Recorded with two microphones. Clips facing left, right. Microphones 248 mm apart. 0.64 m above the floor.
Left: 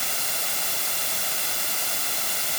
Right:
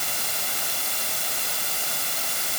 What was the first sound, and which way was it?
Only background noise.